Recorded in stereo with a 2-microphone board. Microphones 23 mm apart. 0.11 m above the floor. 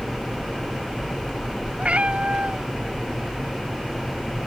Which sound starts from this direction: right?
A cat meowing, at 1.8 s.